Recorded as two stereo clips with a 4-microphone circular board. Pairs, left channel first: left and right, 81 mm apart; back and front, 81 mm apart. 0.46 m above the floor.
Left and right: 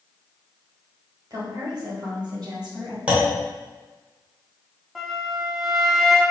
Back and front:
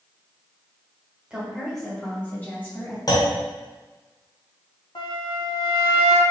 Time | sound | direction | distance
1.3 | a woman speaking | 75° right | 1.3 m
3.1 | a clunk | 160° right | 1.1 m
5.0 | a flute | straight behind | 0.6 m